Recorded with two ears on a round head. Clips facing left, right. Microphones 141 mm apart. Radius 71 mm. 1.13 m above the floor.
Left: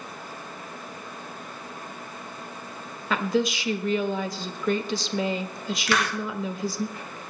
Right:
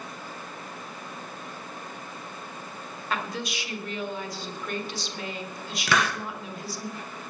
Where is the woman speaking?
65° left (ahead or behind), 1.2 m.